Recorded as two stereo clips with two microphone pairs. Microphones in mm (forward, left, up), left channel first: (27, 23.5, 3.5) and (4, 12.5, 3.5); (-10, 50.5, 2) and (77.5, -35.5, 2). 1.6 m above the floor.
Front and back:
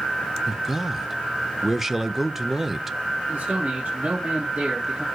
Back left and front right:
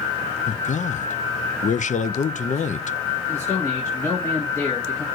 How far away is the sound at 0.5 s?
About 0.7 m.